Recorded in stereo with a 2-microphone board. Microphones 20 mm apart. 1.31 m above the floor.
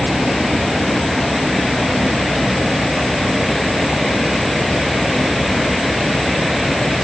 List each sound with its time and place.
Only background noise.